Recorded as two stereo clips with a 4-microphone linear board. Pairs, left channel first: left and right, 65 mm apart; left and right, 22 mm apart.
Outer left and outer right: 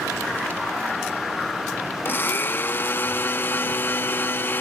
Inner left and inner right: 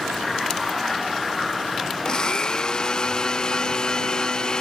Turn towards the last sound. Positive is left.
turn(degrees=35)  # may be behind; listen again after turning